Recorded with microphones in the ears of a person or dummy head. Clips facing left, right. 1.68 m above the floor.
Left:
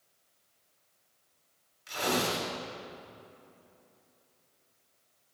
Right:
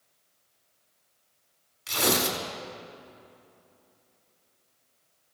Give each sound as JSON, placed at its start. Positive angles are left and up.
{"t": 1.9, "sound": "tearing paper", "side_deg": -85, "distance_m": 3.5}